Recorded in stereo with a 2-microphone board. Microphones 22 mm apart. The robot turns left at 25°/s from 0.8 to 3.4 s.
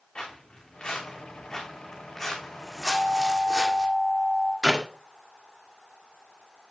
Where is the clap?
20° right (ahead or behind), 1.6 m.